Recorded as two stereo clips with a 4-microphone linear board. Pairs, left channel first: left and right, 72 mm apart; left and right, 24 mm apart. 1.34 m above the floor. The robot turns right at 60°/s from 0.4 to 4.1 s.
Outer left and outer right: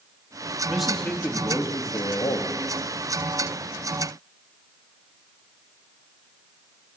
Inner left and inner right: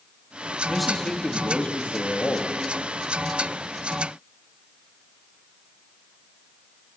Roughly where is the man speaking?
Ahead.